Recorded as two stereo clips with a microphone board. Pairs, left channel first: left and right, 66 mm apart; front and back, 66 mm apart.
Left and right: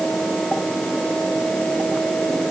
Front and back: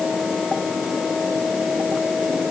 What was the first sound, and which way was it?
Only background noise.